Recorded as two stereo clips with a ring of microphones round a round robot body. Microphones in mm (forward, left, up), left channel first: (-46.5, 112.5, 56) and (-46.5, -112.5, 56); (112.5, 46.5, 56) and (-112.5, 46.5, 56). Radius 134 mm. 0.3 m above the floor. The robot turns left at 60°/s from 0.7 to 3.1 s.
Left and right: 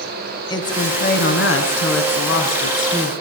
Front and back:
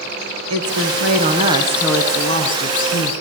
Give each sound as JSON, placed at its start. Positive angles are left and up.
{"t": 0.5, "sound": "a woman speaking", "azimuth_deg": 160, "distance_m": 4.0}